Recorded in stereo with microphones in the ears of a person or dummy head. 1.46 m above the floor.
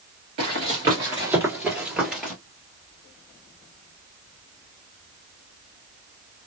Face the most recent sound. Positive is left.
turn(degrees=0)  # may be behind; listen again after turning